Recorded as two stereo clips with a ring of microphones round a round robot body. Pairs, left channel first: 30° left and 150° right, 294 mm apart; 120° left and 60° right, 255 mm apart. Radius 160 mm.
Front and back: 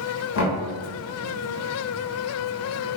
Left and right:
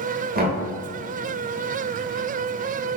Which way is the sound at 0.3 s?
10° right.